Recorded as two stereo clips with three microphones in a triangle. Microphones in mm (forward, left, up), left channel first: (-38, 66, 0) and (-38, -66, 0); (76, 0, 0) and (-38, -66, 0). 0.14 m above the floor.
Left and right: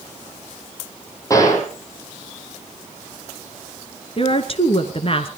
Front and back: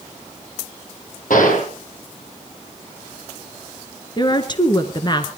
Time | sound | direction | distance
1.3 | a gunshot | 25° left | 5 m
4.2 | a woman speaking | 70° left | 2 m